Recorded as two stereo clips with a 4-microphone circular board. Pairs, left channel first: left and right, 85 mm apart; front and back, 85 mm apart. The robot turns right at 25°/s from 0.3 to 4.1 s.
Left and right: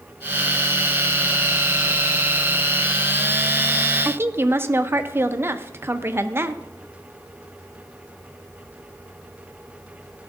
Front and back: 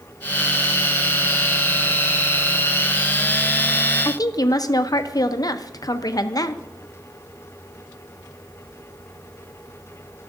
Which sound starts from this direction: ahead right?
A woman speaking, at 4.0 s.